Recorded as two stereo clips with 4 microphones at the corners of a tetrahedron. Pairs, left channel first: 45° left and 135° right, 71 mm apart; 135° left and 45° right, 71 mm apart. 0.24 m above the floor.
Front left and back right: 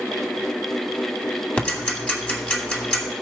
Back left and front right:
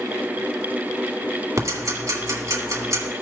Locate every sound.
1.6 s ticking: 25° right, 2 m